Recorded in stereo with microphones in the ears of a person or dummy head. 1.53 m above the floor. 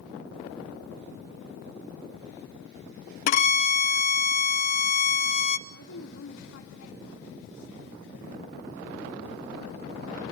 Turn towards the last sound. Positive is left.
turn(degrees=70)  # may be behind; listen again after turning